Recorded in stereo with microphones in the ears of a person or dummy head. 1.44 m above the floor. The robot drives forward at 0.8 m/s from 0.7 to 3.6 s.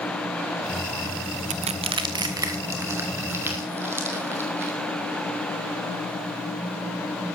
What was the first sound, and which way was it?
Crushing, 35° right (ahead or behind).